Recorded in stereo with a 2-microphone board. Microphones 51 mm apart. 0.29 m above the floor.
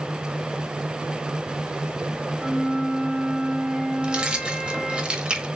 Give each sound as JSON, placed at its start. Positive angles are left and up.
{"t": 2.4, "sound": "a flute", "side_deg": -15, "distance_m": 1.5}
{"t": 4.0, "sound": "keys jangling", "side_deg": -20, "distance_m": 0.7}